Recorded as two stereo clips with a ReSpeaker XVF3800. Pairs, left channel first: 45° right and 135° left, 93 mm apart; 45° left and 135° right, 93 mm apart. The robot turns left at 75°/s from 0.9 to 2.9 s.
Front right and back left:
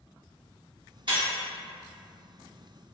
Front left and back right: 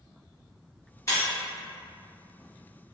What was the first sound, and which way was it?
Breaking glass, 100° left.